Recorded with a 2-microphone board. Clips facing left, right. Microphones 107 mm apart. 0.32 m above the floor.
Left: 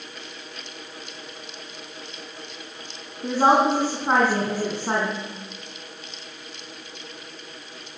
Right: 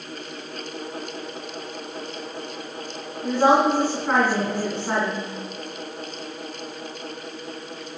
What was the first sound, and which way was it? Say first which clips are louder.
A woman speaking: even; 30° left (ahead or behind).